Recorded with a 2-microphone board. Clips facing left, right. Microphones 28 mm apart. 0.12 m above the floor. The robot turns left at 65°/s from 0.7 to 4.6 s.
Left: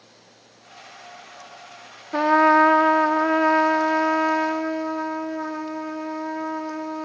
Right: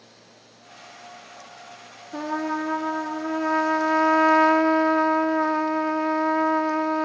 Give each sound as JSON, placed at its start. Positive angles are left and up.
{"t": 2.1, "sound": "a trumpet", "azimuth_deg": 130, "distance_m": 0.8}